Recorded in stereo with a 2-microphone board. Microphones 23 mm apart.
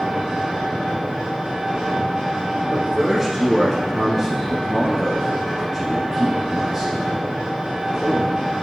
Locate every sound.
0.0 s an engine running: 40° right (ahead or behind), 4 m
2.7 s a man speaking: 5° right (ahead or behind), 1.6 m